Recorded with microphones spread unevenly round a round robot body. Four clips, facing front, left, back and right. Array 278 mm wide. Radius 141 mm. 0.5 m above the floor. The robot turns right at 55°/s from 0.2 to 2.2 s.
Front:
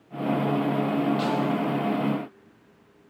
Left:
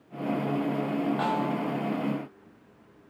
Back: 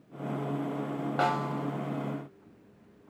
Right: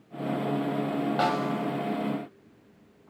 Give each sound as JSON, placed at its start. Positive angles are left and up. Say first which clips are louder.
{"t": 1.2, "sound": "a snare drum", "louder": "right 1 dB, front 4 dB", "azimuth_deg": -115, "distance_m": 1.9}